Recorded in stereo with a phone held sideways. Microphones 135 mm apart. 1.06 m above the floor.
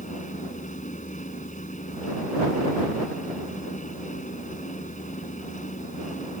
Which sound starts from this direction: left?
A fan, at 0.0 s.